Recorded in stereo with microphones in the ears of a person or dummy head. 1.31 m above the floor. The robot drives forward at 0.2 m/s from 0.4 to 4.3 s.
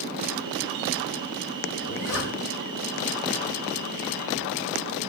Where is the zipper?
75° left (ahead or behind), 3 m.